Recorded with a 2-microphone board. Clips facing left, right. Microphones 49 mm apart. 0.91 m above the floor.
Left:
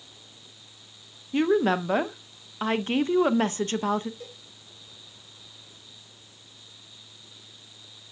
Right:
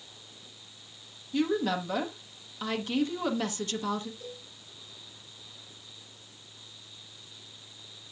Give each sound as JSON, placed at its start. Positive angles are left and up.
{"t": 1.3, "sound": "a woman speaking", "side_deg": 35, "distance_m": 0.6}
{"t": 4.2, "sound": "a cowbell", "side_deg": 65, "distance_m": 4.5}